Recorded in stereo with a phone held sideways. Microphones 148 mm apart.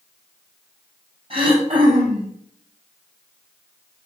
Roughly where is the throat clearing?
Right.